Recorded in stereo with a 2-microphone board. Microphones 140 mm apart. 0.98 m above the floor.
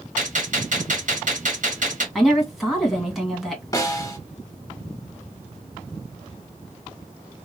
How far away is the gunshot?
About 1.1 m.